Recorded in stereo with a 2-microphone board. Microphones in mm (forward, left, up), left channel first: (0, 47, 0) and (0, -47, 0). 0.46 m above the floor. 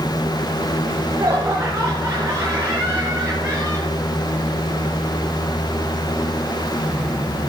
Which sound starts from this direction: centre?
Laughter, at 0.8 s.